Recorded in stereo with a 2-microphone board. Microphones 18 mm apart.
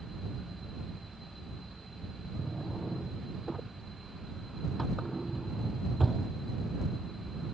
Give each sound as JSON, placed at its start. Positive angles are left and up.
{"t": 2.4, "sound": "a drawer", "side_deg": 0}